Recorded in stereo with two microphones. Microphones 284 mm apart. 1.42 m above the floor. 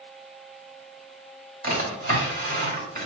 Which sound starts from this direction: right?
A drawer, at 1.6 s.